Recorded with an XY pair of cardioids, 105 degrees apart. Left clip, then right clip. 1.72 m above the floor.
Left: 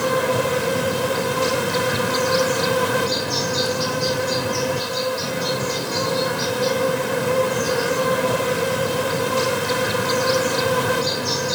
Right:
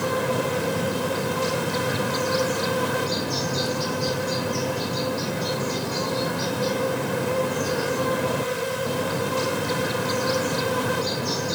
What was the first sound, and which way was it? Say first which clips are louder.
An insect: left 5 dB; 35° left.